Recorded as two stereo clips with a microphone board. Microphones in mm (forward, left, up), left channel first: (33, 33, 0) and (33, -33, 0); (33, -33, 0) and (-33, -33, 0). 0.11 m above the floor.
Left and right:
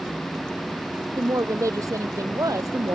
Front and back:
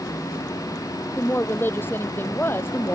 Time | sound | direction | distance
1.2 | a woman speaking | 55° right | ?